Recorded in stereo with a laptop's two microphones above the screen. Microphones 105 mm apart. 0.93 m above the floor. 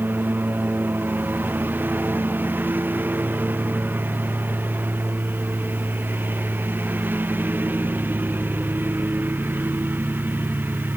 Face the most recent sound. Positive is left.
turn(degrees=-20)  # may be behind; listen again after turning